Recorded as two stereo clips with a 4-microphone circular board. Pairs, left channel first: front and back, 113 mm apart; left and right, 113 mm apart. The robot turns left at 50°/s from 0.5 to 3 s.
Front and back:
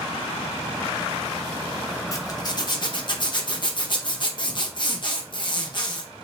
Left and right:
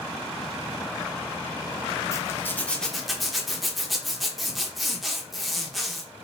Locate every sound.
2.1 s a zipper: 45° left, 1.1 m; by 6.0 s straight ahead, 1.1 m